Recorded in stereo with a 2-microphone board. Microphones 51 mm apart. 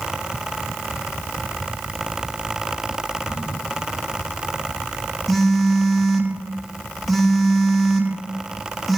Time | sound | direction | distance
3.3 | a crack | 70° left (ahead or behind) | 3 m
5.3 | a phone buzzing | centre (ahead or behind) | 1.0 m